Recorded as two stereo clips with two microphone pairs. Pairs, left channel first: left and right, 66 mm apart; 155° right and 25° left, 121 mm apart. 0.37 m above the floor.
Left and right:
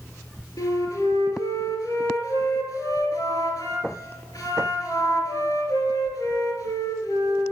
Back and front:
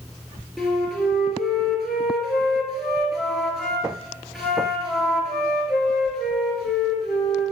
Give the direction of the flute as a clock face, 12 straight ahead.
8 o'clock.